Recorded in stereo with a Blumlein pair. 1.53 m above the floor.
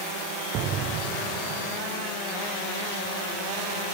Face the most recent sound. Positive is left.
turn(degrees=-35)